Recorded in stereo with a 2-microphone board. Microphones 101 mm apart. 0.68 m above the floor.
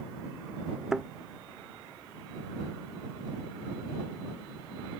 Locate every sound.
0.9 s a thud: 5° right (ahead or behind)